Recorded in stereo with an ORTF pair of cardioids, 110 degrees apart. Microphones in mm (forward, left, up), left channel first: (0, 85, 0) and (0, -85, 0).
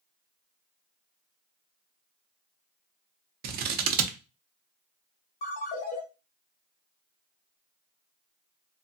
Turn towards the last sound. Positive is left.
turn(degrees=65)